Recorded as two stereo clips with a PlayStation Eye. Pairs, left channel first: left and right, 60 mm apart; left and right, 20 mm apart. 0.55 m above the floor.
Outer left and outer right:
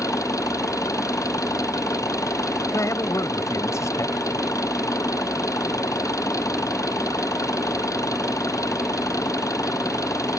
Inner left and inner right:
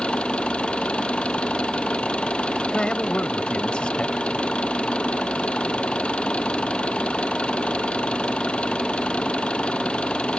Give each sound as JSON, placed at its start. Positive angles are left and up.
{"t": 0.0, "sound": "an engine running", "side_deg": 65}
{"t": 2.7, "sound": "a man speaking", "side_deg": 55}